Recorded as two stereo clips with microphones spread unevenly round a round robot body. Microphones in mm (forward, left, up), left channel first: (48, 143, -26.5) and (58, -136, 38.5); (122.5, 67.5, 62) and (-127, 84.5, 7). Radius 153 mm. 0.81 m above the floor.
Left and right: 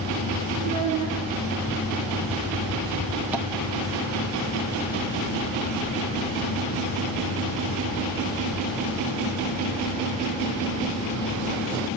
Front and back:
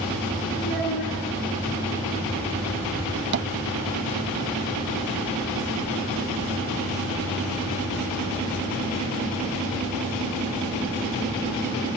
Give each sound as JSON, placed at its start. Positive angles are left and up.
{"t": 0.6, "sound": "a child speaking", "azimuth_deg": -110, "distance_m": 8.5}
{"t": 3.3, "sound": "tapping", "azimuth_deg": 180, "distance_m": 0.5}